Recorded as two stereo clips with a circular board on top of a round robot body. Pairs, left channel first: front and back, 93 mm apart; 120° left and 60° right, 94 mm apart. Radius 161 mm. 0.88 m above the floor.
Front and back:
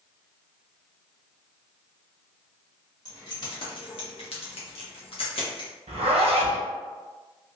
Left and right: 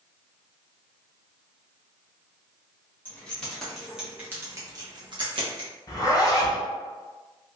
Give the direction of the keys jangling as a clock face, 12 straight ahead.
10 o'clock.